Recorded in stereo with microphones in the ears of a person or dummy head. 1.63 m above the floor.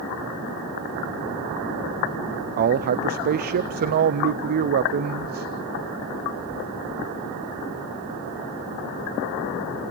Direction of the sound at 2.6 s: 45° right (ahead or behind).